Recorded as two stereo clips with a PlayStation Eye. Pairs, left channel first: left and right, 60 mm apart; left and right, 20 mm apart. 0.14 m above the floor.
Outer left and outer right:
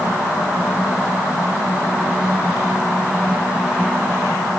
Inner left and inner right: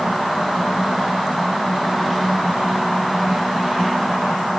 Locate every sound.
Only background noise.